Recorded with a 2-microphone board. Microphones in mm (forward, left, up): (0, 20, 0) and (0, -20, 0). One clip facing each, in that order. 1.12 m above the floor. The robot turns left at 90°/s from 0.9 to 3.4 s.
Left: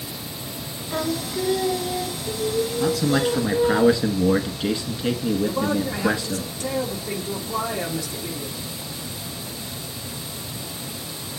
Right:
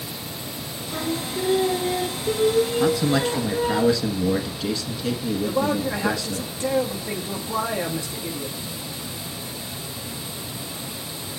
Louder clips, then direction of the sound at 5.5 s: Right 1 dB; 30° right (ahead or behind).